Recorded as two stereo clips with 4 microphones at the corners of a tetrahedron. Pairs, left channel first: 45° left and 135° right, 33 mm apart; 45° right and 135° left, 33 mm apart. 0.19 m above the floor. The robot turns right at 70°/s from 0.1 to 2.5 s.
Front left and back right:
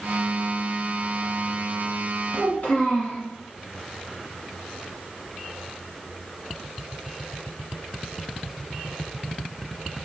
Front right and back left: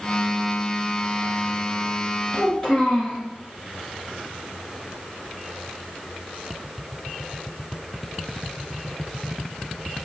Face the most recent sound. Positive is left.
turn(degrees=30)